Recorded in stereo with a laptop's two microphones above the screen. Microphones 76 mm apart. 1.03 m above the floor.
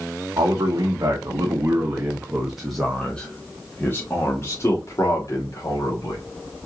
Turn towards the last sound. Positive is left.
turn(degrees=50)  # may be behind; listen again after turning